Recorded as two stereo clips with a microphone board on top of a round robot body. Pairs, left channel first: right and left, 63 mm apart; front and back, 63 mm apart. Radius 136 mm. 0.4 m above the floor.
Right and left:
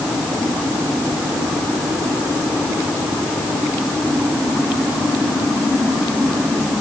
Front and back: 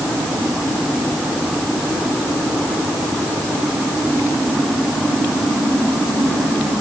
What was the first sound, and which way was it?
Only background noise.